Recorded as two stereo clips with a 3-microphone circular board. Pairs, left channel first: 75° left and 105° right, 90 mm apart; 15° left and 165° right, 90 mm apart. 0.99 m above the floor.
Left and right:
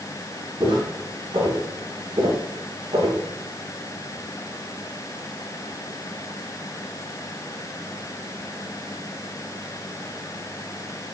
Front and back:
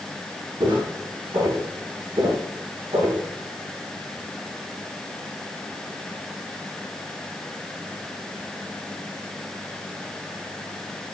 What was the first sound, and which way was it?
Footsteps, 140° right.